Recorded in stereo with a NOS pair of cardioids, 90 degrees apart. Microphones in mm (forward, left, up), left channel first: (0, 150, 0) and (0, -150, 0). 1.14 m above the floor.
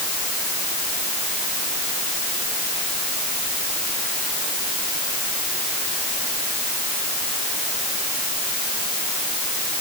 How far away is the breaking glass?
No breaking glass in this recording.